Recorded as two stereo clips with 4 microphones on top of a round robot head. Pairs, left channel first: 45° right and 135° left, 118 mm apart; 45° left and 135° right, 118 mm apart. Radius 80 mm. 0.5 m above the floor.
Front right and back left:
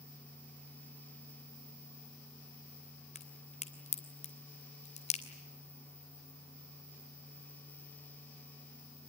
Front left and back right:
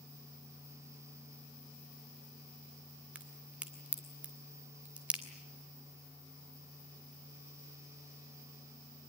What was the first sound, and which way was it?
A crack, 60° right.